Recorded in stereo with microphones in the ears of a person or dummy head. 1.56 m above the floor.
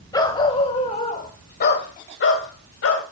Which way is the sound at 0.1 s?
30° left (ahead or behind).